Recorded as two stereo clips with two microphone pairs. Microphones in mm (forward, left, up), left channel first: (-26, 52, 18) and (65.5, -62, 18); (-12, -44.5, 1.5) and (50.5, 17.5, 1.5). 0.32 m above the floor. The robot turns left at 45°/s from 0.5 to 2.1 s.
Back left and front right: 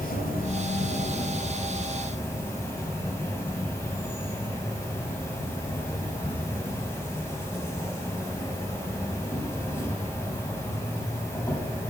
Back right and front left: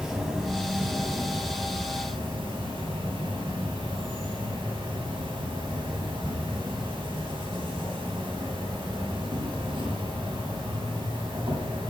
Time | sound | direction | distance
0.0 | an insect | 125° left | 1.2 m